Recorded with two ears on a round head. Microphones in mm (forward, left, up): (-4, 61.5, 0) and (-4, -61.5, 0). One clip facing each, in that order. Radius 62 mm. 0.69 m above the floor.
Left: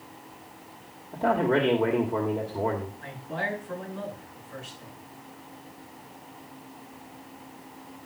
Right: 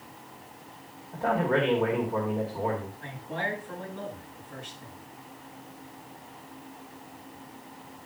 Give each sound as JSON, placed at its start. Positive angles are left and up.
{"t": 1.1, "sound": "a man speaking", "side_deg": 25, "distance_m": 2.0}
{"t": 3.0, "sound": "a man speaking", "side_deg": 5, "distance_m": 8.5}